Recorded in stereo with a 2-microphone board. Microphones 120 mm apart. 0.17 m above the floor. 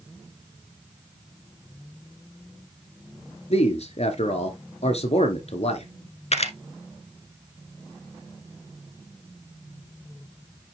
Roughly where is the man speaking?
Left.